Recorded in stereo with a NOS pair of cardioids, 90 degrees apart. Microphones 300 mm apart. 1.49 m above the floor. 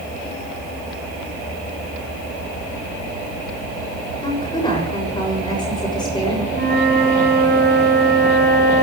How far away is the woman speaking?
About 6.5 m.